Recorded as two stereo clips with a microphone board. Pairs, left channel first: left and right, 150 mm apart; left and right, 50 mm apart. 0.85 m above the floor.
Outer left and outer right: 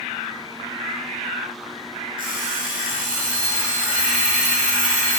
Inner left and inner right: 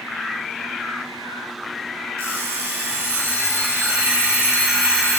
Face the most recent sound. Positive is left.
turn(degrees=-80)